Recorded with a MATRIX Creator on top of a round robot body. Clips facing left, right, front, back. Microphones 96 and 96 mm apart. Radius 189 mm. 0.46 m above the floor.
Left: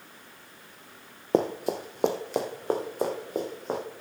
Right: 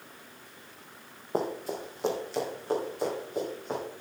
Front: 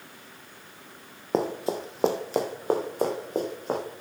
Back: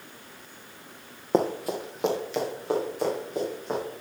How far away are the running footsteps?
About 0.6 m.